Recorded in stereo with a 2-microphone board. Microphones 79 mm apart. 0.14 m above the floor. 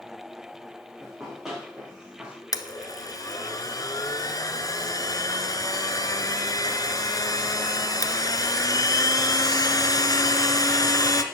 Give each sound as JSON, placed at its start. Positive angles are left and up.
{"t": 1.0, "sound": "running footsteps", "side_deg": 0, "distance_m": 5.5}
{"t": 2.5, "sound": "a blender", "side_deg": 50, "distance_m": 1.1}